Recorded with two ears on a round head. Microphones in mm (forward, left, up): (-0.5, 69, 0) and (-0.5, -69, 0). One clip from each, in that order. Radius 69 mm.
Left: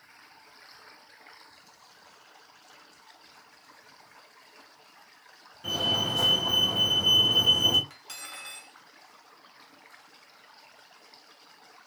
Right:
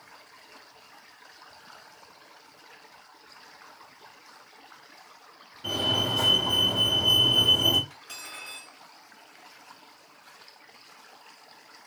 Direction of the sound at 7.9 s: 35° left (ahead or behind).